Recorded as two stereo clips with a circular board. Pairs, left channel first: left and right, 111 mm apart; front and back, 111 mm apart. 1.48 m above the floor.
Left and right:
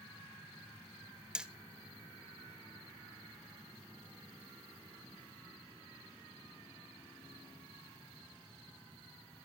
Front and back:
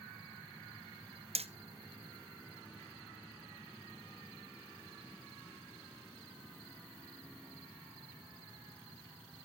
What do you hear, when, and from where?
1.4 s hammering: 170° right, 0.6 m